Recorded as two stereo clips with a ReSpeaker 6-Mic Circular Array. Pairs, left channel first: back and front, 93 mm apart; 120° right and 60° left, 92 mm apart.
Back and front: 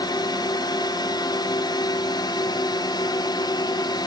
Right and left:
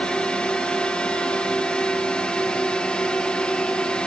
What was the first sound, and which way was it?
A drone, 165° left.